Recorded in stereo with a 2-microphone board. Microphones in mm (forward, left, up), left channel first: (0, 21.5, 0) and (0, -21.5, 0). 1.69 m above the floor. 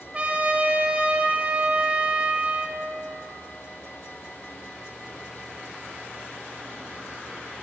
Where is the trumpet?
30° right (ahead or behind), 0.5 m.